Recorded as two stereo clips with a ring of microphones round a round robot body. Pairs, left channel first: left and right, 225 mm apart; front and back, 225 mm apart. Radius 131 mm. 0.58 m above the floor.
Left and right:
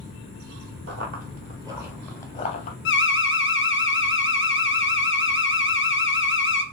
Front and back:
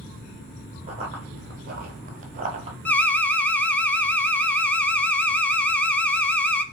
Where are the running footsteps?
115° right, 0.9 m; by 2.8 s 125° left, 0.7 m.